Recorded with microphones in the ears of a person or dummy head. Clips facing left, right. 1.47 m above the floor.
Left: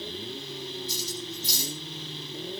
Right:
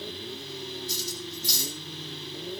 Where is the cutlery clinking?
20° left (ahead or behind), 5.5 m.